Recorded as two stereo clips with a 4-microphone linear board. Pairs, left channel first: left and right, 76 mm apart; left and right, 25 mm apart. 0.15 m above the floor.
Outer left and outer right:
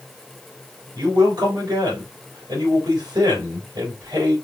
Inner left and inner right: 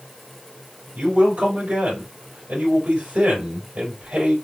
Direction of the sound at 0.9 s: 65° right (ahead or behind).